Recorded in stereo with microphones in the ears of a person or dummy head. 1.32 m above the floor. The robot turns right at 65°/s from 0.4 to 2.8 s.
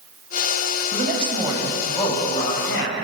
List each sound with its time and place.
0.9 s a man speaking: 55° right, 8 m; by 3.0 s 65° left, 8 m